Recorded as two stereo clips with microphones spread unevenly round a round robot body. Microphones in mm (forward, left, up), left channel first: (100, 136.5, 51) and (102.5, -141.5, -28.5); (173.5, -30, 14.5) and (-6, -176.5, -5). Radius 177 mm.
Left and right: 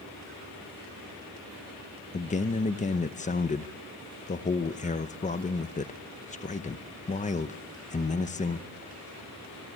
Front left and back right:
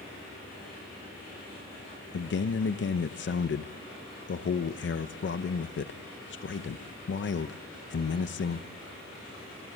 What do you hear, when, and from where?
2.1 s a man speaking: 20° left, 0.8 m